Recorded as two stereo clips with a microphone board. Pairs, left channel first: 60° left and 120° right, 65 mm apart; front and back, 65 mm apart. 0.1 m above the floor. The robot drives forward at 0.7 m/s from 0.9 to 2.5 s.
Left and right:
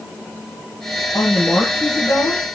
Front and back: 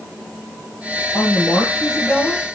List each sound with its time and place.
1.1 s a woman speaking: 65° left, 2.0 m; by 2.5 s 100° left, 1.9 m